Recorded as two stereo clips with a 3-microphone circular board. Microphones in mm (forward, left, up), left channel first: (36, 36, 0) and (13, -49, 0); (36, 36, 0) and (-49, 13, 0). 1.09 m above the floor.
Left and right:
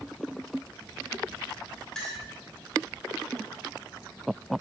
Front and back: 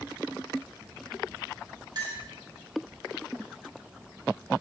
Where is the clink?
160° left, 3.5 m.